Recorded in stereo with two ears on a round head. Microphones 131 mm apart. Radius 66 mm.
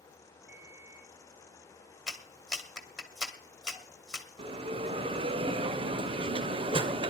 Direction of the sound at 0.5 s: 75° right (ahead or behind).